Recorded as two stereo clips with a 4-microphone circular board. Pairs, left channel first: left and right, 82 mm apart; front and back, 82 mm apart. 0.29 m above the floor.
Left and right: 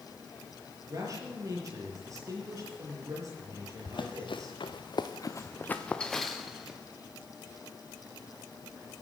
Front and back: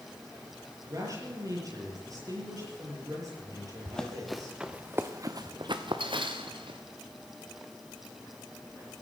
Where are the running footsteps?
75° left, 2 m; by 6.8 s 170° right, 2.5 m.